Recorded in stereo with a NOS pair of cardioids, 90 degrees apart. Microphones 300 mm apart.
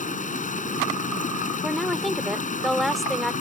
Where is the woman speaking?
Straight ahead.